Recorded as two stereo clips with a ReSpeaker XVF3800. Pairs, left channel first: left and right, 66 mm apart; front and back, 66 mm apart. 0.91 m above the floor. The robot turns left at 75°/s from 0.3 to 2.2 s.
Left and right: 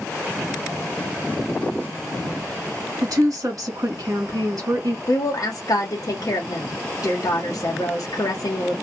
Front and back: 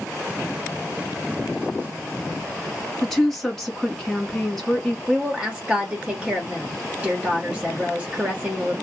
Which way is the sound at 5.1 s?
110° left.